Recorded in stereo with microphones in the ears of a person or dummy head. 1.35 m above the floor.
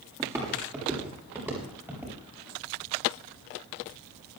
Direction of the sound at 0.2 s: 15° right (ahead or behind).